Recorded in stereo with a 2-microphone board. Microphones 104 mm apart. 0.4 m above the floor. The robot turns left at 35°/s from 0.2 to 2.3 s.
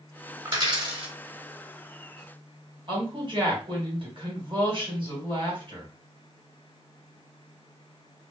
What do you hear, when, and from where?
0.5 s a dropped coin: 40° right (ahead or behind), 1.5 m; by 1.1 s 65° right (ahead or behind), 1.5 m
2.9 s a woman speaking: 50° right (ahead or behind), 1.8 m